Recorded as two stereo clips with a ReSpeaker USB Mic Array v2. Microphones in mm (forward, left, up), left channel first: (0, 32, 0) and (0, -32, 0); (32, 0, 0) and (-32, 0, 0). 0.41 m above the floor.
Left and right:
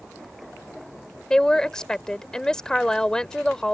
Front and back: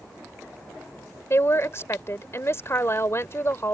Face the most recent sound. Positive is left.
turn(degrees=15)